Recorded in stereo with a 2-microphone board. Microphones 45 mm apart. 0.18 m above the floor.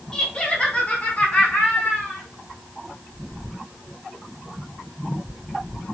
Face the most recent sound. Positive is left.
turn(degrees=45)  # may be behind; listen again after turning